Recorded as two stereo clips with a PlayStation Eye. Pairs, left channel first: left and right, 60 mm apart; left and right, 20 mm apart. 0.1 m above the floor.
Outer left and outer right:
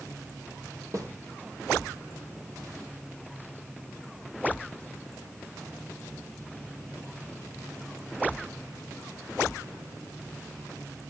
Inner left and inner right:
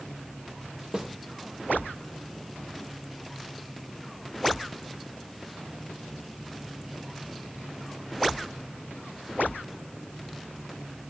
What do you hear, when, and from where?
0.9 s a snare drum: 55° right (ahead or behind), 3.5 m